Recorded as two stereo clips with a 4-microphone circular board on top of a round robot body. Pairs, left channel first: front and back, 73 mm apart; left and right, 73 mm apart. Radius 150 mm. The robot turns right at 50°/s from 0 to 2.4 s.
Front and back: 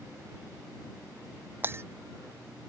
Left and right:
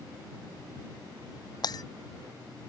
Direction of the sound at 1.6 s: 115° left.